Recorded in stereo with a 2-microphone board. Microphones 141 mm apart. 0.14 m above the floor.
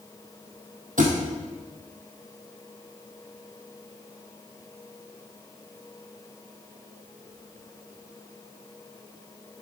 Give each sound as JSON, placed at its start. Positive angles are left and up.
{"t": 1.0, "sound": "a thud", "side_deg": -70, "distance_m": 1.7}